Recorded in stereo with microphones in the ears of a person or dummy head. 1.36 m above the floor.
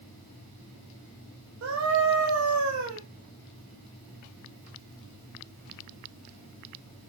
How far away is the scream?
About 1.0 m.